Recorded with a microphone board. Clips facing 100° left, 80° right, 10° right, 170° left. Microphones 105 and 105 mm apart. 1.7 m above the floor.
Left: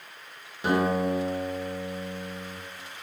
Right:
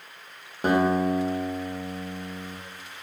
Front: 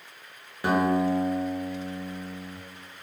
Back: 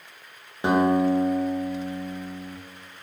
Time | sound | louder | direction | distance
0.6 | a guitar | right 3 dB, back 3 dB | 120° right | 0.6 m